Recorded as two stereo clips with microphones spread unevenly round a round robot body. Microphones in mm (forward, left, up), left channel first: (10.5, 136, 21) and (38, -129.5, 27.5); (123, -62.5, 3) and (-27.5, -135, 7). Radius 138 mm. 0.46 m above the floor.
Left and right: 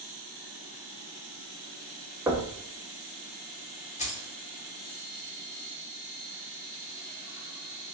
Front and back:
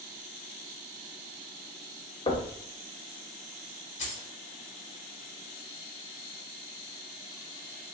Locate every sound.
2.3 s knocking: 10° right, 0.6 m
4.0 s keys jangling: 50° left, 0.8 m